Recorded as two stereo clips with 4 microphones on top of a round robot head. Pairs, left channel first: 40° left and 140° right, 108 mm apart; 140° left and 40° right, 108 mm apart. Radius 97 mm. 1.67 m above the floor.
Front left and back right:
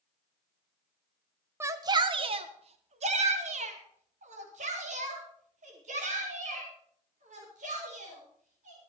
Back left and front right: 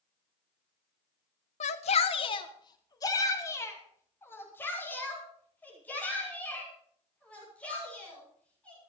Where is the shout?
155° left, 1.0 m; by 8.8 s 140° right, 7.5 m.